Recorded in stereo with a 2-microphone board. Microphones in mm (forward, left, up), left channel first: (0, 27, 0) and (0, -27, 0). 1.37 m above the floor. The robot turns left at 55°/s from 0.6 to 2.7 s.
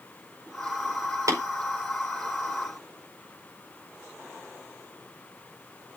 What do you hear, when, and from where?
1.3 s tapping: 85° right, 5 m; by 1.4 s 90° right, 5 m